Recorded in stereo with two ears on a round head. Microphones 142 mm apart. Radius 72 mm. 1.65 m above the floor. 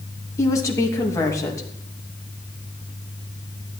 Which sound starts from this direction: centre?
A woman speaking, at 0.4 s.